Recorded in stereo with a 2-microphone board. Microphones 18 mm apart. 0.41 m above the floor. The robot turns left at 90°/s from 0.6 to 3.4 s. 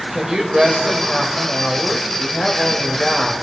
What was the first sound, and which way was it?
A woman speaking, 135° right.